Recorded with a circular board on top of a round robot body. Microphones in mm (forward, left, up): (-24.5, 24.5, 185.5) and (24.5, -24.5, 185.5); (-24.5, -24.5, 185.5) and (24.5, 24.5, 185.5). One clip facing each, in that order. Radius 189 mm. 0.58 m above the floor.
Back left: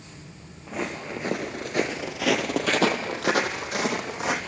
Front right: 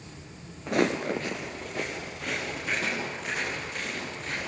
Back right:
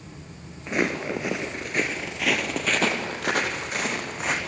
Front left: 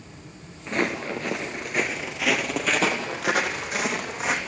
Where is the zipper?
I don't hear a zipper.